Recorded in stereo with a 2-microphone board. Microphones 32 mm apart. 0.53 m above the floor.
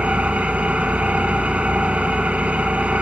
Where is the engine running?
60° right (ahead or behind), 1.4 m.